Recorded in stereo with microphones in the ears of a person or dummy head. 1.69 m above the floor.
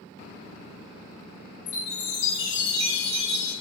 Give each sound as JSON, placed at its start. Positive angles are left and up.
{"t": 1.7, "sound": "a chime", "side_deg": 65, "distance_m": 2.5}